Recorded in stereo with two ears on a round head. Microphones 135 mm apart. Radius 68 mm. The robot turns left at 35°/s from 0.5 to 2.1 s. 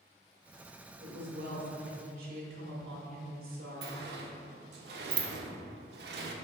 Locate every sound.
1.0 s a woman speaking: 60° right, 2.0 m; by 4.0 s 100° right, 2.0 m
3.8 s a sliding door: 75° right (ahead or behind), 0.7 m